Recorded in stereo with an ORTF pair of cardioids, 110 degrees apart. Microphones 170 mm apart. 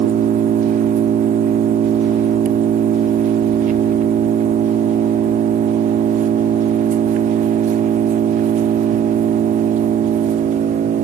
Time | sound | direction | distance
0.0 | an engine running | 50° right | 0.9 m